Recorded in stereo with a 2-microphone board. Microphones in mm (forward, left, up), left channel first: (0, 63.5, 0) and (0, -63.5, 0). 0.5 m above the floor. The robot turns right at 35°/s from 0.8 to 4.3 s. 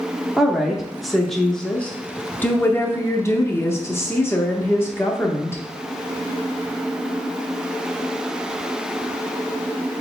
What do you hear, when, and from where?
0.4 s a woman speaking: 5° right (ahead or behind), 0.7 m; by 5.6 s 20° left (ahead or behind), 0.7 m